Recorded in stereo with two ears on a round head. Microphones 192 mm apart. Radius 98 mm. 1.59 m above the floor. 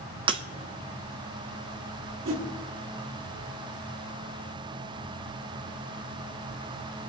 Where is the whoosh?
60° right (ahead or behind), 2.5 m.